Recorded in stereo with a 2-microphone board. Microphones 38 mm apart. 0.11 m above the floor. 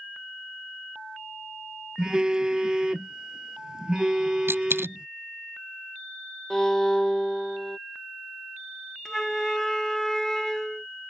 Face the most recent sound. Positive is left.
turn(degrees=10)  # may be behind; listen again after turning